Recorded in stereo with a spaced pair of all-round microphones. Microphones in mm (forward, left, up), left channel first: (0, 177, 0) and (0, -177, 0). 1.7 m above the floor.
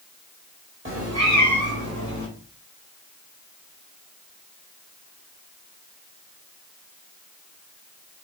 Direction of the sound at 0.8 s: 35° right (ahead or behind).